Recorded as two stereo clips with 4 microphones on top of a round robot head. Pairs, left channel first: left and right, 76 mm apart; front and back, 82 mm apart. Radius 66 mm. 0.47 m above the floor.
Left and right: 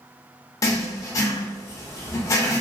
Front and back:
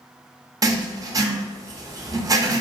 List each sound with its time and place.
0.6 s writing: 135° left, 0.5 m